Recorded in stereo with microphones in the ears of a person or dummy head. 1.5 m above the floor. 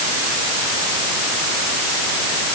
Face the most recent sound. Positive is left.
No sound to turn to.